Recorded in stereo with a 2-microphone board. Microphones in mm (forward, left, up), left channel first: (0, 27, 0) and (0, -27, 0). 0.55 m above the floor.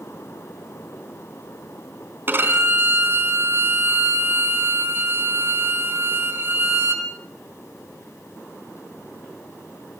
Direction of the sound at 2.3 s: 40° right (ahead or behind).